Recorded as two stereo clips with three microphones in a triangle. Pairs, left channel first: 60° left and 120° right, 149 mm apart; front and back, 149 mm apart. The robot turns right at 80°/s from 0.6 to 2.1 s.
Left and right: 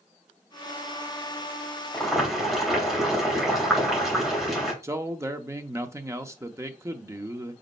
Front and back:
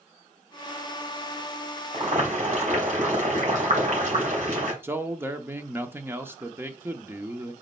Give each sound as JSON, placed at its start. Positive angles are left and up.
{"t": 1.9, "sound": "boiling", "azimuth_deg": 140, "distance_m": 2.5}
{"t": 4.8, "sound": "a man speaking", "azimuth_deg": -140, "distance_m": 0.6}